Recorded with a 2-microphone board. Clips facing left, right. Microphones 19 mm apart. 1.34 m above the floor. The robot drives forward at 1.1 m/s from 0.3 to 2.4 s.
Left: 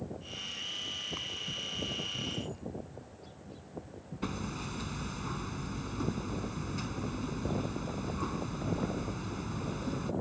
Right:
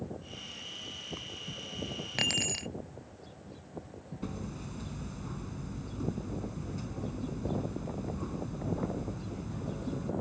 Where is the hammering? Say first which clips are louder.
Left 4 dB; 35° left (ahead or behind).